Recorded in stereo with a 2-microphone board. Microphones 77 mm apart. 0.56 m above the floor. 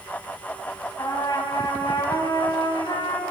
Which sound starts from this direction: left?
A trumpet, at 1.0 s.